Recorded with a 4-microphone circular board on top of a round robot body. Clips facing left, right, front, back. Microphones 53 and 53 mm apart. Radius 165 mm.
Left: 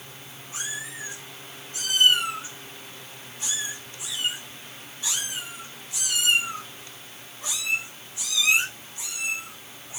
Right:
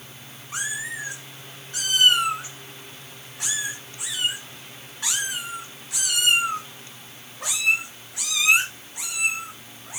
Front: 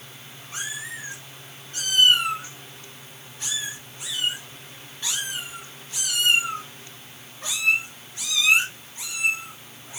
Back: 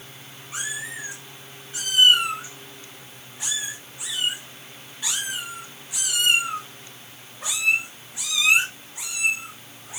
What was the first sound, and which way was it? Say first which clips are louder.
A cat meowing: right 5 dB, back 1 dB; 100° right.